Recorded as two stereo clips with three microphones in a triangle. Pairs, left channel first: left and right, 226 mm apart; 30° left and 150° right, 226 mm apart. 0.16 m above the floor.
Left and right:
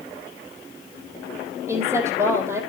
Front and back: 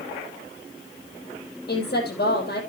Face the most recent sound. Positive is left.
turn(degrees=-10)